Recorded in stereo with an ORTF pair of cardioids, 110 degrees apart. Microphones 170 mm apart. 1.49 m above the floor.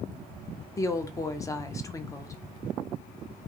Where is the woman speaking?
20° left, 0.5 m.